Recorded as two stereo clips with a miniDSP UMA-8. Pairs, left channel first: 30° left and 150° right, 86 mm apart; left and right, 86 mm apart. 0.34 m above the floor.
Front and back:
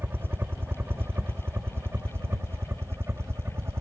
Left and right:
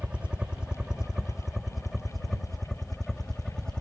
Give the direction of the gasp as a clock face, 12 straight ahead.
I don't hear a gasp.